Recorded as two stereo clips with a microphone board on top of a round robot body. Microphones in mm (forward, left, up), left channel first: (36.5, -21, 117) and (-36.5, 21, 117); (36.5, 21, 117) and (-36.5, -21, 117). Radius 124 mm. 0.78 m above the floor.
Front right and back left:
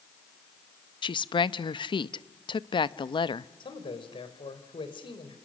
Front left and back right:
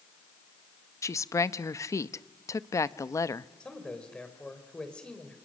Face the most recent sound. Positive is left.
turn(degrees=-50)